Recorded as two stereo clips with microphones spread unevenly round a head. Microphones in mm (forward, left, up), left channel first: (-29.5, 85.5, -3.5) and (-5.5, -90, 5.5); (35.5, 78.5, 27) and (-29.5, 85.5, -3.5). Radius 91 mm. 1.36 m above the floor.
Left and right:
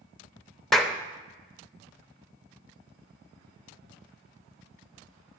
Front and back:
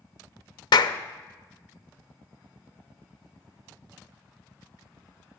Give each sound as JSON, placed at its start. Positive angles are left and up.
{"t": 0.7, "sound": "a clap", "azimuth_deg": 10, "distance_m": 0.6}